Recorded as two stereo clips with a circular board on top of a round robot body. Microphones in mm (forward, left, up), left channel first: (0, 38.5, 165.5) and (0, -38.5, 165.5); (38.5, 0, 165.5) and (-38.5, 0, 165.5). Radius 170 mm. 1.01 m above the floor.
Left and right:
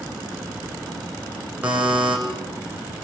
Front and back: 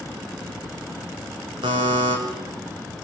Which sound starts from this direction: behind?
A buzzer, at 1.6 s.